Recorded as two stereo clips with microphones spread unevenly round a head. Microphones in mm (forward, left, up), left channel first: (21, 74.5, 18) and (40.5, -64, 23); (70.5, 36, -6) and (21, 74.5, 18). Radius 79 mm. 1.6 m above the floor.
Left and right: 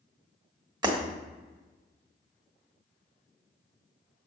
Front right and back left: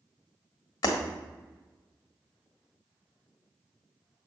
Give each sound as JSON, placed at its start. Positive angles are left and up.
{"t": 0.8, "sound": "breaking glass", "azimuth_deg": -35, "distance_m": 1.4}